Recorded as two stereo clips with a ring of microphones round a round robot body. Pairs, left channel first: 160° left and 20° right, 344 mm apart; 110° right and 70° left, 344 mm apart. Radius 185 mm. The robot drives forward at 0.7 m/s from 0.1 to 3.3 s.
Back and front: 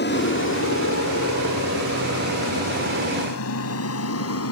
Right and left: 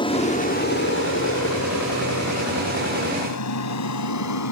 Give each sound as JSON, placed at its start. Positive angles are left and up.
{"t": 0.0, "sound": "an aircraft", "azimuth_deg": -175}